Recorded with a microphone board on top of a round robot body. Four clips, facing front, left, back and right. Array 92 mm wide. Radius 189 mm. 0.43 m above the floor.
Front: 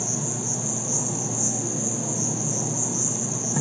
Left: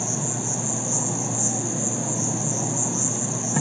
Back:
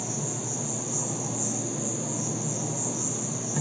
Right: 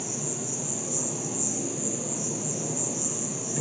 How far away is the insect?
About 1.7 m.